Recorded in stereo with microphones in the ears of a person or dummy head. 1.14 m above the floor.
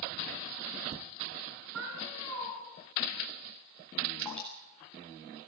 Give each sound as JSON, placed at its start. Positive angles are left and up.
{"t": 1.7, "sound": "a cat meowing", "side_deg": -80, "distance_m": 4.5}
{"t": 4.2, "sound": "dripping", "side_deg": 0, "distance_m": 5.0}